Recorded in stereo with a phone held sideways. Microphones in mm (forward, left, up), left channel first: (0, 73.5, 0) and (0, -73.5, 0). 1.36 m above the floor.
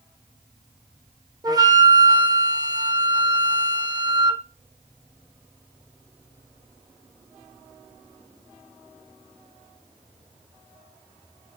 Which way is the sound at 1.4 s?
25° right (ahead or behind).